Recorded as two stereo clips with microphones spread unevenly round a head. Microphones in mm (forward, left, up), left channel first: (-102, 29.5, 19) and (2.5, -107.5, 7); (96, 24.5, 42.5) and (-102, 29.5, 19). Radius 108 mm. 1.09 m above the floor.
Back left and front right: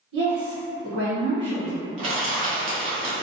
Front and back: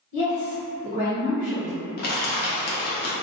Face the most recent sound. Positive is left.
turn(degrees=0)